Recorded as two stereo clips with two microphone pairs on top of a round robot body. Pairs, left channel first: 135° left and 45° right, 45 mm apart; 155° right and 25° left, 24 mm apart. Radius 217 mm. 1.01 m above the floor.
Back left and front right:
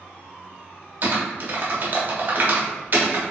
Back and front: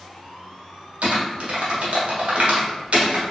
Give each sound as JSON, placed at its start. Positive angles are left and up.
{"t": 1.0, "sound": "typing on a keyboard", "azimuth_deg": 0, "distance_m": 1.3}